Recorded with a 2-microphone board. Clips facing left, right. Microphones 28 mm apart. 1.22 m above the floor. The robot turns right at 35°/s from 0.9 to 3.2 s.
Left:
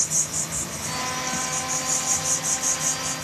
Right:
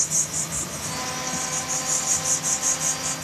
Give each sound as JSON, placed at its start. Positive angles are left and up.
{"t": 0.0, "sound": "an insect", "side_deg": 5, "distance_m": 1.0}